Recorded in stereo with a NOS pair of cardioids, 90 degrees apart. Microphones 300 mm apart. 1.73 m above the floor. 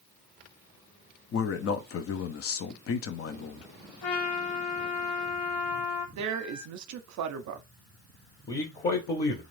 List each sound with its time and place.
1.3 s a man speaking: 50° left, 0.6 m
4.0 s a trumpet: 55° left, 0.7 m
6.2 s a woman speaking: 65° right, 0.6 m
8.5 s a man speaking: 30° left, 1.0 m